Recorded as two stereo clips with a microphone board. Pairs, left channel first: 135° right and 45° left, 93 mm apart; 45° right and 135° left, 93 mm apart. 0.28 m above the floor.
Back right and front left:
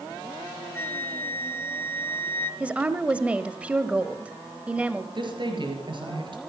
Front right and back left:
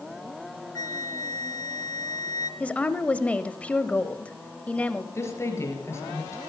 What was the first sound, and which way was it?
A flute, 75° right.